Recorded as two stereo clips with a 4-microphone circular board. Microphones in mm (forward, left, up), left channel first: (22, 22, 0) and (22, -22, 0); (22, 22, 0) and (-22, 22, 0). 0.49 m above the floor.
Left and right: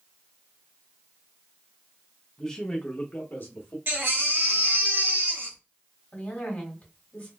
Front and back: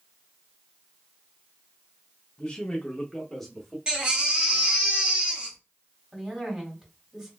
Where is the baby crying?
110° right, 1.0 m.